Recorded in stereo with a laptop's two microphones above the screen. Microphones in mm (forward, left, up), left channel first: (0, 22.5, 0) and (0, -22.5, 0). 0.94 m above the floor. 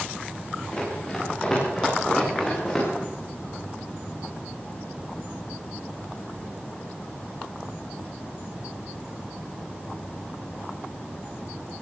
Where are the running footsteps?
10° left (ahead or behind), 7.5 m; by 2.9 s 5° left (ahead or behind), 9 m.